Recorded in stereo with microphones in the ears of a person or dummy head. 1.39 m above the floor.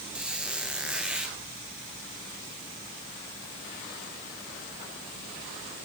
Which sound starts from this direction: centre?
A squeak, at 0.1 s.